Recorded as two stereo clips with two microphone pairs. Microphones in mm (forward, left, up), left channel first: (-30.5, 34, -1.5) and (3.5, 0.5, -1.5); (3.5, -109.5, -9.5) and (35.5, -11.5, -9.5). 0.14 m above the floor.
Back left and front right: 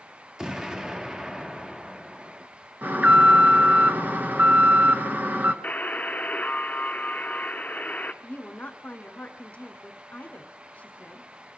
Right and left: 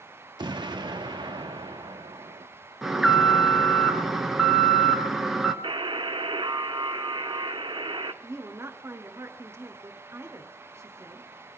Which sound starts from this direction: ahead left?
An explosion, at 0.4 s.